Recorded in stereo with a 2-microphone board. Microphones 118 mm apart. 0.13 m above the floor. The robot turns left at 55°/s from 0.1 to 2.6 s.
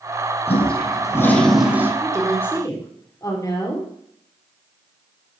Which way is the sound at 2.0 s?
175° right.